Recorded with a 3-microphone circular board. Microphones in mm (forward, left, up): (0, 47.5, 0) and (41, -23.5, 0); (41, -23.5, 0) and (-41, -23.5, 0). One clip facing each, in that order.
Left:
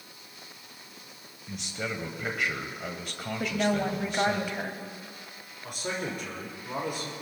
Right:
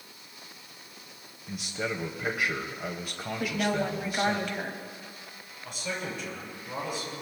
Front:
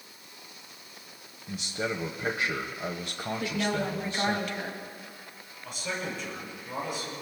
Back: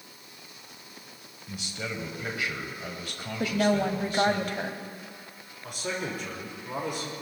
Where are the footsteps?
No footsteps in this recording.